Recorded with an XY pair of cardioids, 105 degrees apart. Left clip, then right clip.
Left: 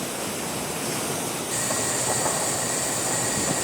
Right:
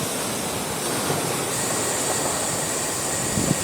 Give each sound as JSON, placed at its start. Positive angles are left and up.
{"t": 1.5, "sound": "boiling", "azimuth_deg": 5, "distance_m": 4.5}